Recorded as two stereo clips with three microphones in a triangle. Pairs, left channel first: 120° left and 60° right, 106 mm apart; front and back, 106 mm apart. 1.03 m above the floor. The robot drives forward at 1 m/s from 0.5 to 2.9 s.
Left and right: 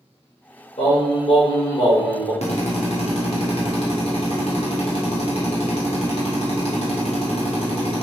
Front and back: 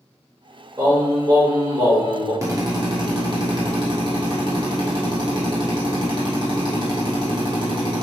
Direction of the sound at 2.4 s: 120° left.